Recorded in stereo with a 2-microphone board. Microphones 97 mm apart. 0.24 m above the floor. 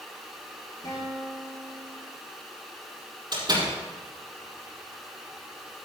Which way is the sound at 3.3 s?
45° right (ahead or behind).